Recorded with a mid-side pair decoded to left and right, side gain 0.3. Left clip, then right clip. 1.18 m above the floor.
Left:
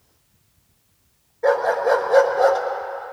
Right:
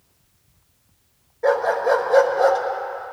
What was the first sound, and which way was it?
A dog barking, 10° left.